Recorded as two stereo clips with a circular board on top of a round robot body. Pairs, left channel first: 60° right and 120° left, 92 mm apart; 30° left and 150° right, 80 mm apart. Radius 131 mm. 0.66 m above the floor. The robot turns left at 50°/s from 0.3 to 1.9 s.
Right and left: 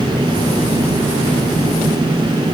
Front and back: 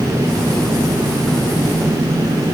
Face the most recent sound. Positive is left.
No sound to turn to.